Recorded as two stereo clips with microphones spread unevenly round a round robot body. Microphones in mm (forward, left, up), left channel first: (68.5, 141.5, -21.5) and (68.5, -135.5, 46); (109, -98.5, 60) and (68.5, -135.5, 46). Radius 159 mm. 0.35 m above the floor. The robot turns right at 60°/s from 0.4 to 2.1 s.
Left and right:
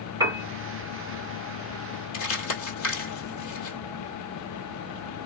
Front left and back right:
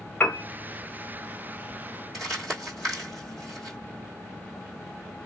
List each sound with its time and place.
0.2 s a piano: straight ahead, 0.9 m; by 0.5 s 5° left, 0.9 m
2.1 s crumpling: 140° left, 1.5 m